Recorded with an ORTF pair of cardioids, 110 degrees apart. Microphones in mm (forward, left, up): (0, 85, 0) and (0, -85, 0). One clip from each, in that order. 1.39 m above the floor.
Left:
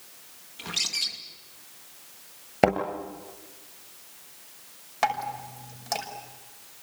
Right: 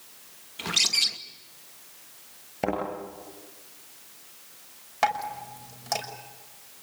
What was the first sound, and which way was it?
A bird, 35° right.